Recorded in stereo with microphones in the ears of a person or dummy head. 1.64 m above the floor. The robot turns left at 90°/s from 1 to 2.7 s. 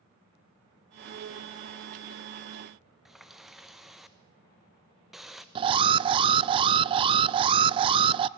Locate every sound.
3.0 s a running tap: 5° right (ahead or behind), 1.0 m
5.5 s an alarm: 25° right (ahead or behind), 0.6 m